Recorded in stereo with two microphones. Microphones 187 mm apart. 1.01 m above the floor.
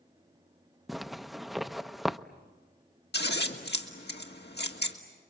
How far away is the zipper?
About 0.6 m.